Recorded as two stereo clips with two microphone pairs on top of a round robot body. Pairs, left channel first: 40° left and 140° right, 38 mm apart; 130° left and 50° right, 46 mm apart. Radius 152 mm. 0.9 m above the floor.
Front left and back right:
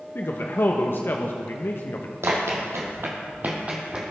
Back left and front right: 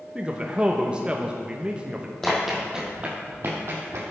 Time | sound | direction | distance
0.1 | a man speaking | 20° left | 1.1 m
2.2 | running footsteps | 145° right | 2.5 m